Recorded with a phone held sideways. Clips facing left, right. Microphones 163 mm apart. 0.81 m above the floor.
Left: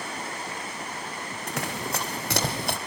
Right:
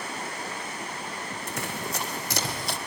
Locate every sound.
1.5 s running footsteps: 75° left (ahead or behind), 3.5 m; by 2.8 s 60° left (ahead or behind), 1.8 m